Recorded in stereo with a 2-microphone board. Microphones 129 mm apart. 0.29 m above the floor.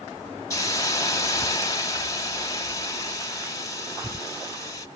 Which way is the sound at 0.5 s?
25° left (ahead or behind).